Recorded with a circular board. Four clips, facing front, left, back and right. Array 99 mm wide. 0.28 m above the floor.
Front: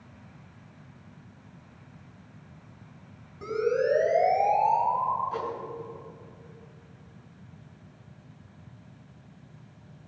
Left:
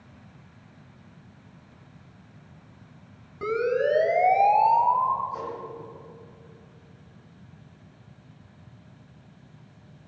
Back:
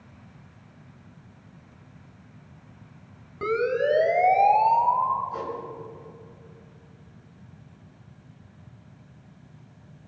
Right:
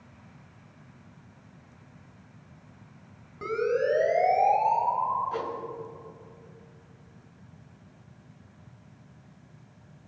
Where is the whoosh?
65° right, 4 m.